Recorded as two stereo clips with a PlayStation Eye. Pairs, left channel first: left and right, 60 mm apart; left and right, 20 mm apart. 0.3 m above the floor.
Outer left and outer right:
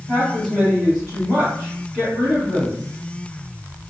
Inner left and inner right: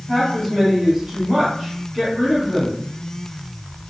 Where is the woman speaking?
20° right (ahead or behind), 1.7 m.